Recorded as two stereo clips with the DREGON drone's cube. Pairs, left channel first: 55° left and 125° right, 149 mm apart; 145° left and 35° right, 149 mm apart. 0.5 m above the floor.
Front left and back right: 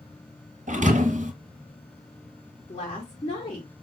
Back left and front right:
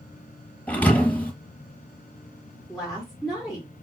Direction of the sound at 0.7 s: 135° right.